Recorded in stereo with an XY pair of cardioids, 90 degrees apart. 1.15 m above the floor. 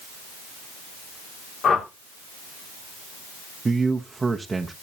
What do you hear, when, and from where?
1.6 s a whoosh: 65° left, 2.5 m
3.6 s a man speaking: 30° right, 0.9 m